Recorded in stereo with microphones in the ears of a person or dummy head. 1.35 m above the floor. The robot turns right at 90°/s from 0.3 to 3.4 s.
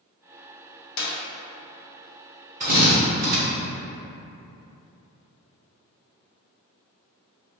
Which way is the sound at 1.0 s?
70° left (ahead or behind).